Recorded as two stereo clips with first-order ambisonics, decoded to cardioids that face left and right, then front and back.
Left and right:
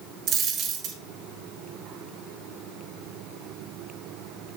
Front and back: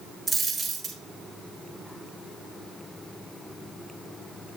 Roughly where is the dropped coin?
Right.